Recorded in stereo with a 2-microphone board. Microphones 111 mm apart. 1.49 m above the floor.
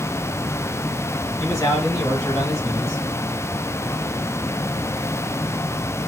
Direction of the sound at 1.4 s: 25° left (ahead or behind).